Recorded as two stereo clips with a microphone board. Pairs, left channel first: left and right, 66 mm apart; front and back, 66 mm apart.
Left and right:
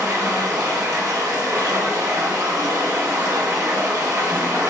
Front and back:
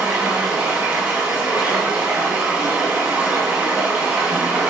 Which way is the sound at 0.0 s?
110° right.